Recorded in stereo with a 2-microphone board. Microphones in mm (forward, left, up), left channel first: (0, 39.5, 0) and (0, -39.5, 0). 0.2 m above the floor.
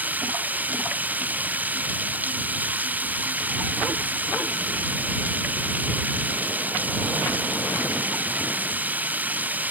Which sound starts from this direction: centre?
Running water, at 0.0 s.